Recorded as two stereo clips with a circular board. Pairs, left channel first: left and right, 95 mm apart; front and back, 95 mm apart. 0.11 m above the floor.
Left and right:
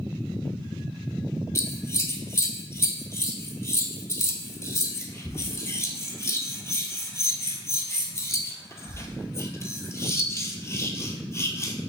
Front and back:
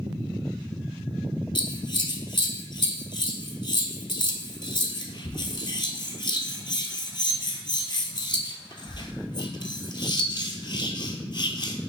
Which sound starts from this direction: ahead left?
Scissors, at 1.6 s.